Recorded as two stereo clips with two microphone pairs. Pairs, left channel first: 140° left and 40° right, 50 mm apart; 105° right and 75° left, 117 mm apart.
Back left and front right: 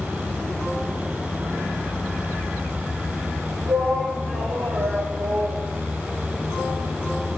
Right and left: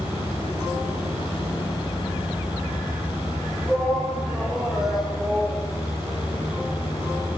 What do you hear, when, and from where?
3.7 s a shout: 15° right, 9 m